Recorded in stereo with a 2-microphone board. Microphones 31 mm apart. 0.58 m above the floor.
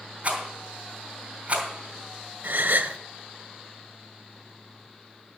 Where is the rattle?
35° right (ahead or behind), 3 m.